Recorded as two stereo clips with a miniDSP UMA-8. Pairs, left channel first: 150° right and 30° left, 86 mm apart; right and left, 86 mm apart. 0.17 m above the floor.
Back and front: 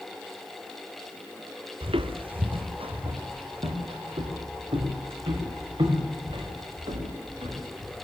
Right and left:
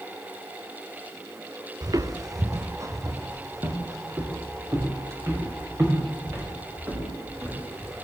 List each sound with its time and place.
1.8 s footsteps: 40° left, 1.1 m; by 7.9 s 30° left, 8.5 m